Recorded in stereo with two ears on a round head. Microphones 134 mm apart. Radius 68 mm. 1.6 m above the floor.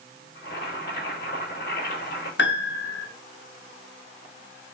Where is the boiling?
60° left (ahead or behind), 7.5 m.